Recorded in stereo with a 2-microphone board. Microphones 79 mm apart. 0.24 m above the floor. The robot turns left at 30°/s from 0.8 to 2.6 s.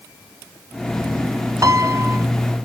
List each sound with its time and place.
1.6 s a piano: 40° right (ahead or behind), 0.5 m; by 2.2 s 30° right (ahead or behind), 0.5 m